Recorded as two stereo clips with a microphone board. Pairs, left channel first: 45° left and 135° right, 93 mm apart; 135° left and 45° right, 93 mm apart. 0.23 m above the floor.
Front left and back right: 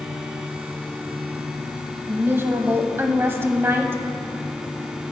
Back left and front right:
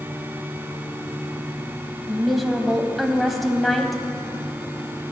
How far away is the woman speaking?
About 1.0 m.